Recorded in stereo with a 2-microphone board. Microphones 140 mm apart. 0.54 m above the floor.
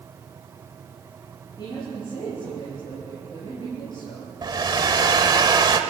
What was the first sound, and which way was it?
A woman speaking, 35° left (ahead or behind).